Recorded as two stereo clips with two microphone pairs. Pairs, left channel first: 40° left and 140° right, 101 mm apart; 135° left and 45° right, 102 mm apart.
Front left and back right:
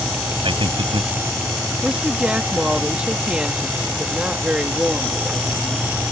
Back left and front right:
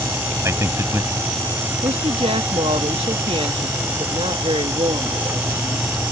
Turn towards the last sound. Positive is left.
turn(degrees=-60)